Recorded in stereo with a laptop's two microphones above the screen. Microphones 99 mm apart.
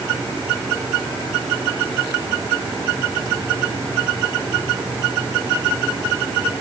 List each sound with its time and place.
Only background noise.